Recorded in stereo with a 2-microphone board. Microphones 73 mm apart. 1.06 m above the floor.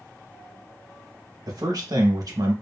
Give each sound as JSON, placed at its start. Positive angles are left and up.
{"t": 1.5, "sound": "a man speaking", "side_deg": -55, "distance_m": 1.1}